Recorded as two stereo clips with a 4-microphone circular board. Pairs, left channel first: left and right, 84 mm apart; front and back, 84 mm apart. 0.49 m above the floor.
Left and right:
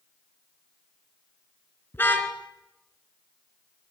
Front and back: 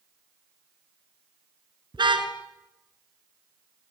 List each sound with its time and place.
1.9 s a car horn: 155° left, 3 m